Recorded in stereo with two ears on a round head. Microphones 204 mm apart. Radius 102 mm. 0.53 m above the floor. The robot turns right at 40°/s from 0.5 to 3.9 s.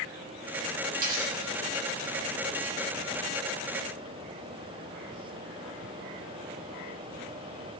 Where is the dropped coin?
40° right (ahead or behind), 9.5 m; by 2.1 s 85° right, 9.5 m.